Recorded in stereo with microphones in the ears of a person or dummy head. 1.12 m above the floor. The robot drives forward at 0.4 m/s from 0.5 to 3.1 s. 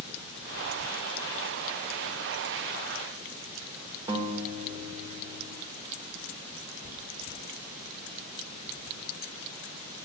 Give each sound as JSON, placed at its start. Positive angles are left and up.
{"t": 4.1, "sound": "a guitar", "side_deg": -25, "distance_m": 1.6}